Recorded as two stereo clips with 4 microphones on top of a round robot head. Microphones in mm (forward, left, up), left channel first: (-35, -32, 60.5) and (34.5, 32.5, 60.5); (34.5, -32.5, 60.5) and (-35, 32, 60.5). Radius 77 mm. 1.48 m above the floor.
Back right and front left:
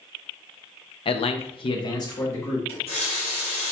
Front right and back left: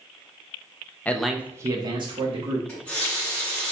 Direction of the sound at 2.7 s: 120° right.